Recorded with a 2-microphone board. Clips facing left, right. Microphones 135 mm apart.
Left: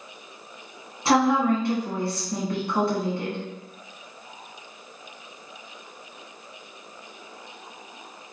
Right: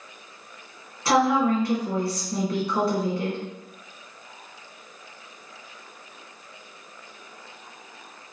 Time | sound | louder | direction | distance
1.1 | a woman speaking | even | 25° left (ahead or behind) | 1.1 m